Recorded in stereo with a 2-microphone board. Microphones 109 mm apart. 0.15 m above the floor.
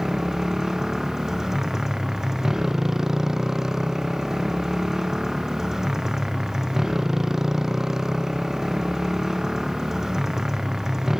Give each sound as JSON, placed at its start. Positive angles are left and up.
{"t": 0.0, "sound": "a motorcycle", "side_deg": -5}